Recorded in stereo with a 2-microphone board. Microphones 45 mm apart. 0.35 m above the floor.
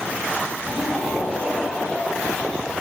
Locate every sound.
0.7 s laughter: 5° right (ahead or behind), 2 m; by 2.7 s 15° right (ahead or behind), 4 m